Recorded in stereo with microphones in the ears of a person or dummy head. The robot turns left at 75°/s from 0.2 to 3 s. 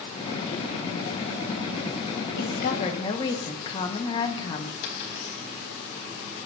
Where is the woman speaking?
75° left, 1.7 m; by 4.7 s 25° left, 1.7 m.